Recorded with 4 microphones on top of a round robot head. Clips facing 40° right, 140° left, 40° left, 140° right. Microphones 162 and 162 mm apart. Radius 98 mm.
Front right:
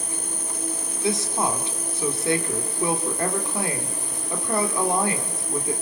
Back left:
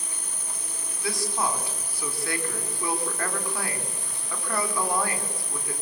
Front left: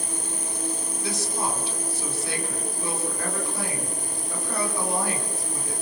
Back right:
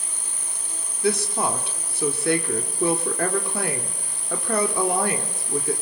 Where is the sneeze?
I don't hear a sneeze.